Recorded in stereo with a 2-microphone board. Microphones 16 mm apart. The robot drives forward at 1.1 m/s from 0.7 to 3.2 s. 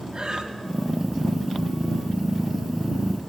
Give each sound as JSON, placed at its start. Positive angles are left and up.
{"t": 0.1, "sound": "breathing", "side_deg": -50, "distance_m": 2.5}